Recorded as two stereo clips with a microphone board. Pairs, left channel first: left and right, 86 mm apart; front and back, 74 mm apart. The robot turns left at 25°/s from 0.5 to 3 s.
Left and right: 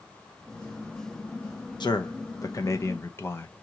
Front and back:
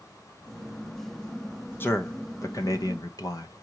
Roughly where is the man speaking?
Ahead left.